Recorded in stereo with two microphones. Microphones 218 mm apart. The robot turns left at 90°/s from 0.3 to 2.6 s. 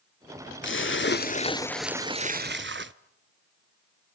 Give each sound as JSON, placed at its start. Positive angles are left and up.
{"t": 0.6, "sound": "a splash", "azimuth_deg": 105, "distance_m": 0.6}